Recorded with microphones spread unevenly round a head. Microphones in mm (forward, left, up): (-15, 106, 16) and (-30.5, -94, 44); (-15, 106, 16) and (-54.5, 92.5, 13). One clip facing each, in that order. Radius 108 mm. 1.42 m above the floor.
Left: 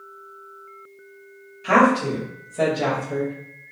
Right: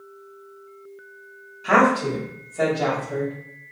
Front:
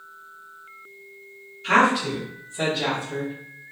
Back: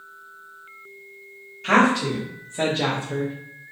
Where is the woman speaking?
170° left, 1.5 m; by 3.3 s 120° left, 0.6 m.